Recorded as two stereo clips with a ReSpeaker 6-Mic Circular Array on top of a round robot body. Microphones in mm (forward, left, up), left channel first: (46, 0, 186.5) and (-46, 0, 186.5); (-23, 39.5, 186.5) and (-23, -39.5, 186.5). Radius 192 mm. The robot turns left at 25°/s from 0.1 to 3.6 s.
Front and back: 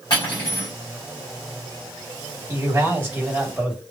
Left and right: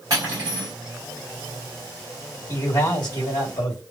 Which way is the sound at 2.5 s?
130° left.